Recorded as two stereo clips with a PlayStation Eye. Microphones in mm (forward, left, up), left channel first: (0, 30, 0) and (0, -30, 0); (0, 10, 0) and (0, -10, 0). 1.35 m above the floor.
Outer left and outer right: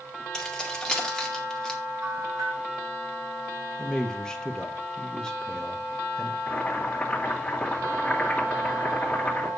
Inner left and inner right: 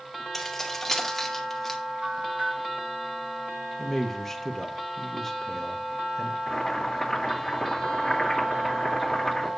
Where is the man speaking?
10° left (ahead or behind), 1.6 m.